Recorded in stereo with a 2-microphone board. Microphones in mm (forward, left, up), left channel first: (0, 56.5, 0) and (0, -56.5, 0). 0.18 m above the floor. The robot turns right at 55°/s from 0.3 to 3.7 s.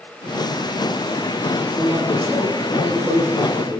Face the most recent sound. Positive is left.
turn(degrees=-85)